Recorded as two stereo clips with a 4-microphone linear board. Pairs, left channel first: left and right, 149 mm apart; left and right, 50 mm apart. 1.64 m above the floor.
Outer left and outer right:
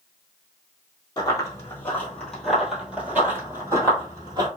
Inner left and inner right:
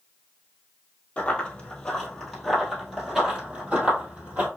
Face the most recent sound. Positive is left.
turn(degrees=-30)  # may be behind; listen again after turning